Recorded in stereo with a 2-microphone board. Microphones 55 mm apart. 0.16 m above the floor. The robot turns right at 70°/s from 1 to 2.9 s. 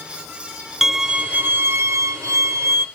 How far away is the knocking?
I don't hear knocking.